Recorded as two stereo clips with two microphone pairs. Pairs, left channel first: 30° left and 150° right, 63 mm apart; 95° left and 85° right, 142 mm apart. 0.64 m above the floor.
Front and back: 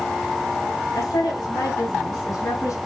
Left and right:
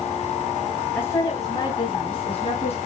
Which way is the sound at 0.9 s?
20° left.